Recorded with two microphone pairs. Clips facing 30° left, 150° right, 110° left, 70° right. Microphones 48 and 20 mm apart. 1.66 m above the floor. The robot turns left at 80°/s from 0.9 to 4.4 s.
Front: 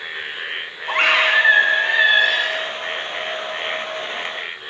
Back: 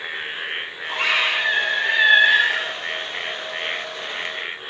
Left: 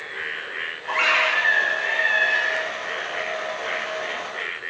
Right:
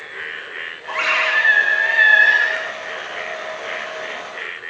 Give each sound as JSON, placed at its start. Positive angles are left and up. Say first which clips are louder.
{"t": 0.9, "sound": "a scream", "louder": "front 5 dB, right 2 dB", "azimuth_deg": 25, "distance_m": 3.0}